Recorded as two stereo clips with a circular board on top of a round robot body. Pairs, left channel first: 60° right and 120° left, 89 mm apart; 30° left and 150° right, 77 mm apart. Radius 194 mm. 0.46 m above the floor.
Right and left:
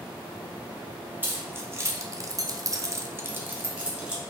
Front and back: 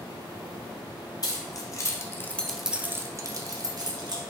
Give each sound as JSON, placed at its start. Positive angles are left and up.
{"t": 1.2, "sound": "keys jangling", "azimuth_deg": 55, "distance_m": 1.0}